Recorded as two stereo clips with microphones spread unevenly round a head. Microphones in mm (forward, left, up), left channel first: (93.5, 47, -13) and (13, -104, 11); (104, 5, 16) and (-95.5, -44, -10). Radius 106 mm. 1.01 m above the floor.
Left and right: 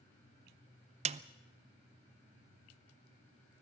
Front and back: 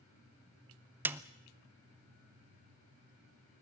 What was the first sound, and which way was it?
A snare drum, 110° right.